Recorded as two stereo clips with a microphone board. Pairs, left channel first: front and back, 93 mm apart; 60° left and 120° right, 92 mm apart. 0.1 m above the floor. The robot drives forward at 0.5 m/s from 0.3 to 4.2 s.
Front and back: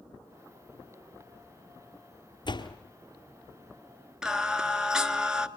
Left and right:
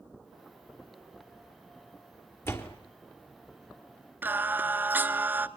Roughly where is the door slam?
Ahead.